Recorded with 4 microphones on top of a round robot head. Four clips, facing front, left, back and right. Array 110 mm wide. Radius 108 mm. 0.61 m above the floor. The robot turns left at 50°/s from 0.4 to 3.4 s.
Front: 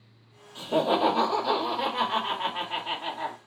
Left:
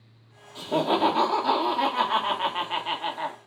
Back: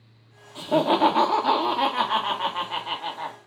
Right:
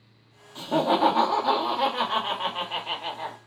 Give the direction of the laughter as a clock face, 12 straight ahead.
5 o'clock.